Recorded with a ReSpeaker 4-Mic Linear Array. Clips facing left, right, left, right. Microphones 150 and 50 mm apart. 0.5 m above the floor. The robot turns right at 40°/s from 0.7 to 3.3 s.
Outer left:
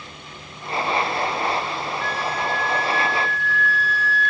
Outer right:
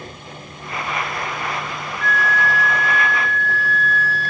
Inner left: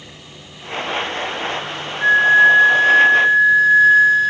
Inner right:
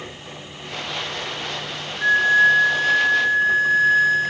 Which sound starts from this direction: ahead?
A flute, at 2.0 s.